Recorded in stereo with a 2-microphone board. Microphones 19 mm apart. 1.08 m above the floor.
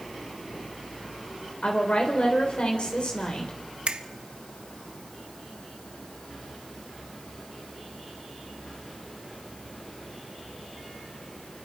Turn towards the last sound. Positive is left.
turn(degrees=-80)